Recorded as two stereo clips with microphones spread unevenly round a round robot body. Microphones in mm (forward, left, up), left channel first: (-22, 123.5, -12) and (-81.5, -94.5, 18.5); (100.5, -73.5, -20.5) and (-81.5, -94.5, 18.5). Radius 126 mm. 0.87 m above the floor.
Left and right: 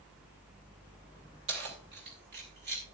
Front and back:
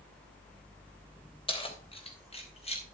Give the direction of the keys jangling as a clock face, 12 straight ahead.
2 o'clock.